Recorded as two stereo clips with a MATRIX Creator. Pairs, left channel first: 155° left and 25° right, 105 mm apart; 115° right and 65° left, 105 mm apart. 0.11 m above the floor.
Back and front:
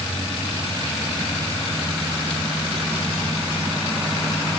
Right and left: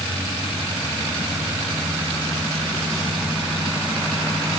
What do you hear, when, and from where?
Only background noise.